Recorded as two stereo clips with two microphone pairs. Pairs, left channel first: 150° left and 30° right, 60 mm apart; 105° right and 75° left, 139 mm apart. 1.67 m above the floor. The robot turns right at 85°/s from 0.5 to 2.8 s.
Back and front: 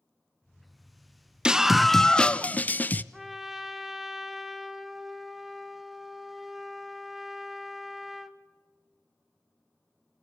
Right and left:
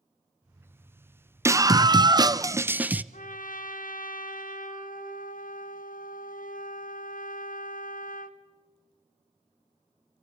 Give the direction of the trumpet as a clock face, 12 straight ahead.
4 o'clock.